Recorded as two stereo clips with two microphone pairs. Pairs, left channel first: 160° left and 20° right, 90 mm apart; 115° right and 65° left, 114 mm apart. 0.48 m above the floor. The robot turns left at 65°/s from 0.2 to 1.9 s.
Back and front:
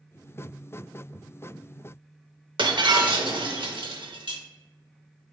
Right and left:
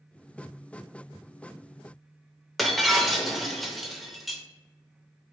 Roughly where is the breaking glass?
Ahead right.